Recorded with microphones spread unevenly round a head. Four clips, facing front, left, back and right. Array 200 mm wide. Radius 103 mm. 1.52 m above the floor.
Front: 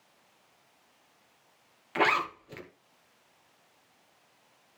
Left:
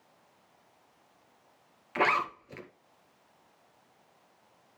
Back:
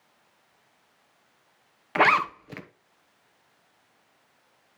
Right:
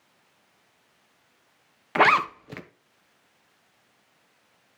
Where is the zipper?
115° right, 1.2 m.